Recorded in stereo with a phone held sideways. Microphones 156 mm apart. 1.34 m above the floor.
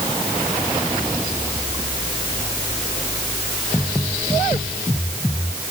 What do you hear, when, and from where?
Only background noise.